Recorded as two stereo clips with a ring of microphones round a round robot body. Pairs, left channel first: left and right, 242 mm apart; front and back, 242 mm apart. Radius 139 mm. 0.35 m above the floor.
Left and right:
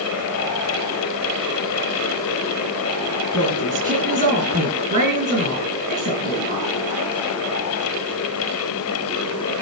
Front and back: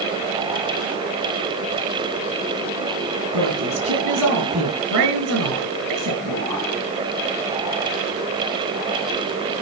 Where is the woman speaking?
150° right, 7.5 m.